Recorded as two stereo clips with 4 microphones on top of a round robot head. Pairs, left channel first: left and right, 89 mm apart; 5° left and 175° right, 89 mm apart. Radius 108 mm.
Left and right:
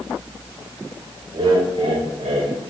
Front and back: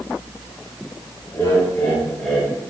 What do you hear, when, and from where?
1.3 s laughter: 60° right, 4 m; by 2.5 s 80° right, 4.5 m